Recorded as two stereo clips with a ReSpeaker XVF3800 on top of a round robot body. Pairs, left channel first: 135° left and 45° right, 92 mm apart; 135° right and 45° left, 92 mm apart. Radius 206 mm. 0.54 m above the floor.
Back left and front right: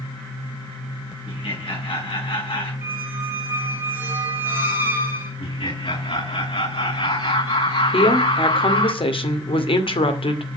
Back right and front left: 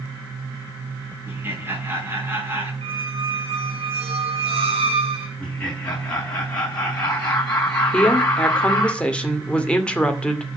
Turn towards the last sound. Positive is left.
turn(degrees=145)